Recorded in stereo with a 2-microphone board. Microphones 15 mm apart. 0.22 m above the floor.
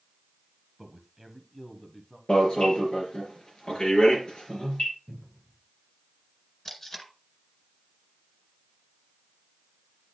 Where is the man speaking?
15° right (ahead or behind), 1.0 m; by 2.2 s 25° left (ahead or behind), 1.3 m.